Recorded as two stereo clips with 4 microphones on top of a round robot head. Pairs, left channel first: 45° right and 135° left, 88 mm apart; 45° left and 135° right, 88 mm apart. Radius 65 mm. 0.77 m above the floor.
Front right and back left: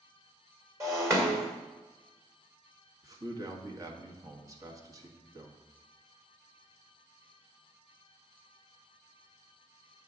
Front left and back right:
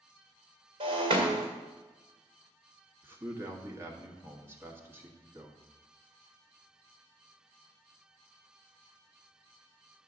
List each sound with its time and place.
0.8 s breaking glass: 170° right, 1.9 m
3.0 s a man speaking: 170° left, 1.4 m